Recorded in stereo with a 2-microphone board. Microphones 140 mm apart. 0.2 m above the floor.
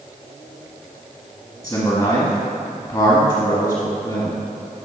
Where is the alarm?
No alarm in this recording.